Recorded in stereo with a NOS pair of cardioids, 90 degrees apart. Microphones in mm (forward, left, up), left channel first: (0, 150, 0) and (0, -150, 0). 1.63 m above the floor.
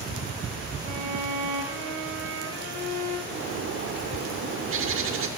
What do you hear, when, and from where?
0.8 s a violin: 60° right, 1.1 m
3.3 s a bird: 45° right, 0.6 m